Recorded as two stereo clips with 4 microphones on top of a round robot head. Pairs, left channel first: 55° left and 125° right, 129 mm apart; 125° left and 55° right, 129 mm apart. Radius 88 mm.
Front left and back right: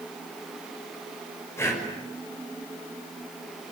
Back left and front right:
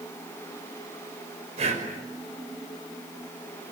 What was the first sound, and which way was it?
Breathing, 15° right.